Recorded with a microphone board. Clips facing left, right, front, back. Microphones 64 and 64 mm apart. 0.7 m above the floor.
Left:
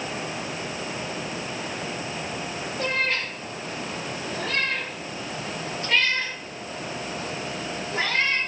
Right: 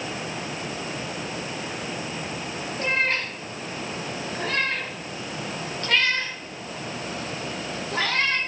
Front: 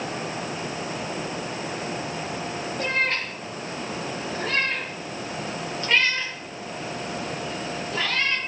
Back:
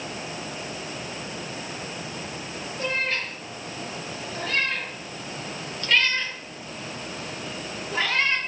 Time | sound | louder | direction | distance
2.8 | a cat meowing | right 2 dB, front 2 dB | 40° right | 7.5 m